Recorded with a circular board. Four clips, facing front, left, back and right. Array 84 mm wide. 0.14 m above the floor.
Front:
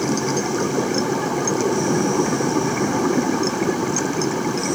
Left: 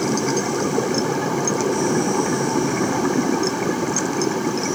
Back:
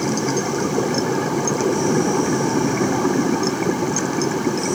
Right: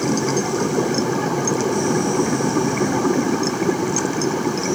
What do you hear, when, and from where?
Only background noise.